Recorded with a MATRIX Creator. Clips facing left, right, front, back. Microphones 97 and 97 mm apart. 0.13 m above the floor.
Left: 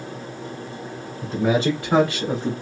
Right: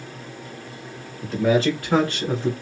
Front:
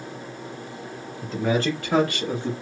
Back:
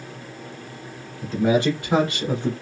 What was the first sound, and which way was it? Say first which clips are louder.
A man speaking: right 1 dB, back 4 dB; 105° left.